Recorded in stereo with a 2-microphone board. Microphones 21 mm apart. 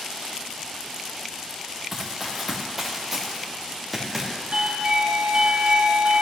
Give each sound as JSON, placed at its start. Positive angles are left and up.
{"t": 1.9, "sound": "running footsteps", "side_deg": -10, "distance_m": 1.7}
{"t": 4.5, "sound": "a doorbell", "side_deg": -50, "distance_m": 3.5}